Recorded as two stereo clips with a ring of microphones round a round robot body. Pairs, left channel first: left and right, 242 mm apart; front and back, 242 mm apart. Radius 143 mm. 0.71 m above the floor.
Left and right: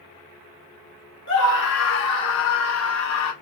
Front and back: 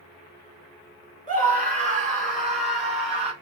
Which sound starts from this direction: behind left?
A scream, at 1.3 s.